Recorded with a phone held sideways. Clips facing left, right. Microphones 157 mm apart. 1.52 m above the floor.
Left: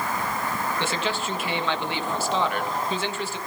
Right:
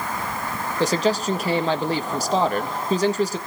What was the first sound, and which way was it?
A man speaking, 40° right (ahead or behind).